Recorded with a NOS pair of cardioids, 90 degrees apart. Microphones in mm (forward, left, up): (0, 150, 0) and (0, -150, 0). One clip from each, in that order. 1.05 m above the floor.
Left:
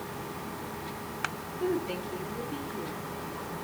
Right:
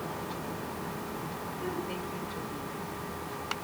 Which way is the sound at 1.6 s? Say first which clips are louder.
Left 7 dB; 60° left.